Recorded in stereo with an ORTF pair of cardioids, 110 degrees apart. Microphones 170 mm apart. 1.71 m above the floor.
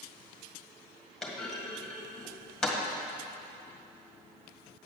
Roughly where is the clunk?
Ahead.